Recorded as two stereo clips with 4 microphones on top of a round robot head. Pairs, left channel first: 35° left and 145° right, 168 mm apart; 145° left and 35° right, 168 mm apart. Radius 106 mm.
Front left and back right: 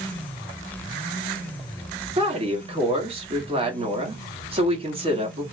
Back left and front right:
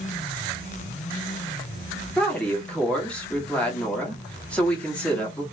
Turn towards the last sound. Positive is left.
turn(degrees=-140)